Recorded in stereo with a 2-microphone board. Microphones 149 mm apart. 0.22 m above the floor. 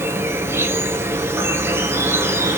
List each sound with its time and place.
0.0 s an insect: 15° right (ahead or behind), 0.8 m